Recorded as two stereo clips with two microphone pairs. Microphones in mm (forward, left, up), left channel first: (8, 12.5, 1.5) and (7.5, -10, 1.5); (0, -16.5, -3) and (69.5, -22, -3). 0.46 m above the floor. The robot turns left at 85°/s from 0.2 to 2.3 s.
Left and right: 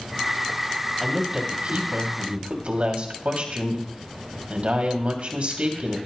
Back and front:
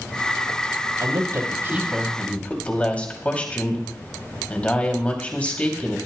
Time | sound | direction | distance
1.0 | a woman speaking | 5° right | 2.5 m